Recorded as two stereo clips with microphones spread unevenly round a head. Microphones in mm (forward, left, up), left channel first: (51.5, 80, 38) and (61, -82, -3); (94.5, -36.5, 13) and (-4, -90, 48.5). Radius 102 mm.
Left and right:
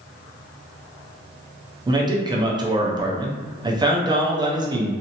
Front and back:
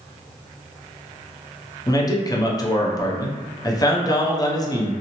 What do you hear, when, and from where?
1.9 s a man speaking: 25° right, 0.7 m